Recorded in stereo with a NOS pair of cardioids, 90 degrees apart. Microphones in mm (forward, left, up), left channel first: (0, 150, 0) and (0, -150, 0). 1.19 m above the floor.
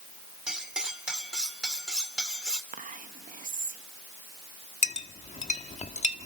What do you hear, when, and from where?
0.5 s cutlery clinking: straight ahead, 2.5 m
2.7 s whispering: 25° right, 1.2 m
4.8 s a clink: 25° left, 1.5 m